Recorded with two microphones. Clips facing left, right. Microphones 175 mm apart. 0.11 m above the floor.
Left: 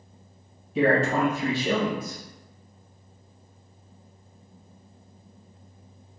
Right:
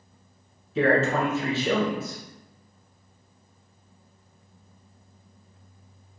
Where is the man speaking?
15° left (ahead or behind), 1.1 m.